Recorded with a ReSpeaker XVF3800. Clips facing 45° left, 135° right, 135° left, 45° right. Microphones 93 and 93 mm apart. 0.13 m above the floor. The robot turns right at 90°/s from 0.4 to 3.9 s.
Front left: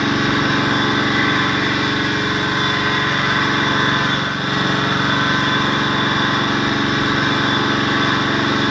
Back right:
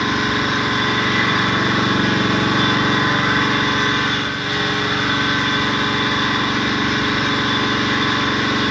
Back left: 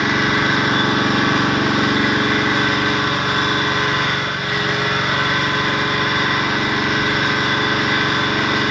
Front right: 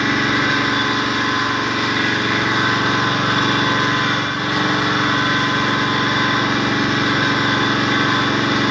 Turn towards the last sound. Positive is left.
turn(degrees=5)